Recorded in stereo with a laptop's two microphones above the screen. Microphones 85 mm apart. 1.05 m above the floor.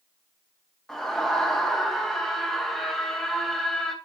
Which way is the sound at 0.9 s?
10° left (ahead or behind).